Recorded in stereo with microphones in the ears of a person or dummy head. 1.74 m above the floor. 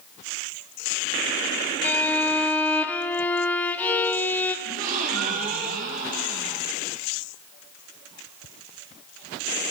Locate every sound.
1.8 s a violin: 10° left (ahead or behind), 0.8 m
4.7 s a gasp: 50° right (ahead or behind), 1.9 m